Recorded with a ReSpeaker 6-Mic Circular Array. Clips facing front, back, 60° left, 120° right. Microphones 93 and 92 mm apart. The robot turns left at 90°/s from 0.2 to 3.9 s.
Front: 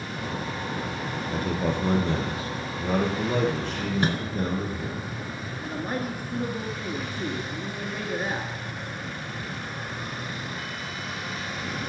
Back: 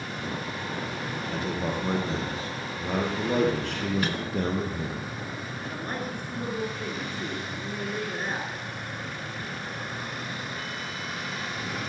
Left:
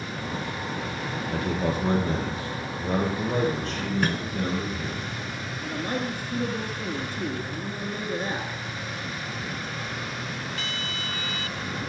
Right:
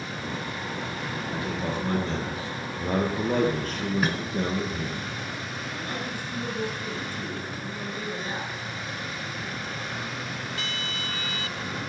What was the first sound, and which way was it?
A man speaking, 55° left.